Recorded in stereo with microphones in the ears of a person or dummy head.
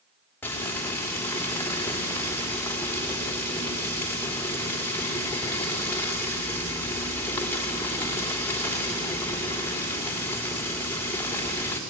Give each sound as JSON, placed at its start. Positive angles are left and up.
{"t": 0.4, "sound": "frying", "side_deg": 10, "distance_m": 3.0}